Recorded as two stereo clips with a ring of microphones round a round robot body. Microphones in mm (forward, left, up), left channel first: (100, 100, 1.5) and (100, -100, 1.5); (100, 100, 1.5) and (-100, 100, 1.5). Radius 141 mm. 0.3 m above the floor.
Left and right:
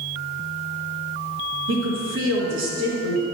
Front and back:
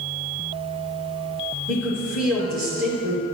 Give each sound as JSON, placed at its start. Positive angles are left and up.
{"t": 1.7, "sound": "a woman speaking", "azimuth_deg": -85, "distance_m": 3.0}